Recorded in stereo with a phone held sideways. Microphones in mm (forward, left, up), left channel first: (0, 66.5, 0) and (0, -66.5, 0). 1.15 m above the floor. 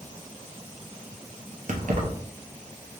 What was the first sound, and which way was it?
Keys jangling, 80° right.